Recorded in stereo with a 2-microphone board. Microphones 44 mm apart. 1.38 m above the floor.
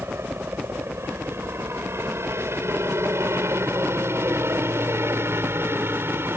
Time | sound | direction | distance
0.0 | a helicopter | 65° right (ahead or behind) | ?